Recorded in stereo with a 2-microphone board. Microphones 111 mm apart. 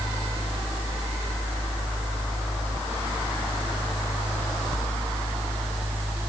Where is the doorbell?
I don't hear a doorbell.